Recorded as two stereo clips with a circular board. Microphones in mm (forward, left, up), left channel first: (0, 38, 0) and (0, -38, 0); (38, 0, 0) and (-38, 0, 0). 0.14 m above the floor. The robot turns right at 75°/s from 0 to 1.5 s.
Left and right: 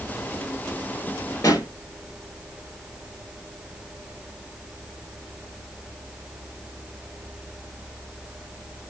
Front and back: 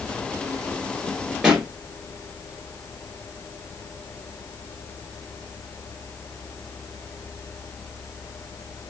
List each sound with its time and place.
1.4 s a pop: 100° left, 1.2 m